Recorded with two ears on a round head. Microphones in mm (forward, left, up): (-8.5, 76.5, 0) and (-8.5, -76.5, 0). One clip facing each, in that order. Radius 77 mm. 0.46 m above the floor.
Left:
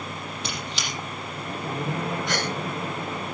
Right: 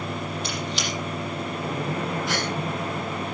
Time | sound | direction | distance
0.4 | a squeak | 60° left (ahead or behind) | 7 m
2.3 | a gasp | centre (ahead or behind) | 6 m